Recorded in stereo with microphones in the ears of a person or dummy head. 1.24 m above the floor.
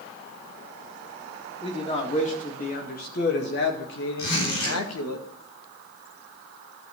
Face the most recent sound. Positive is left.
turn(degrees=85)